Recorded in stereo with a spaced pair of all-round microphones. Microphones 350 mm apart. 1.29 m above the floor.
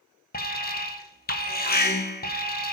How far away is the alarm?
About 0.9 m.